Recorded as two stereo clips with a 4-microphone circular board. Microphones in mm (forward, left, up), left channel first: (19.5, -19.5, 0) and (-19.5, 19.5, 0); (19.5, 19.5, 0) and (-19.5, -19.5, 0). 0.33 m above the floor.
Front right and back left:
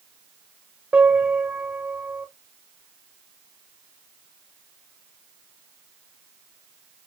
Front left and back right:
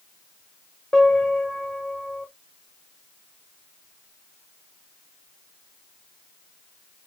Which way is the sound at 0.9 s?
115° left.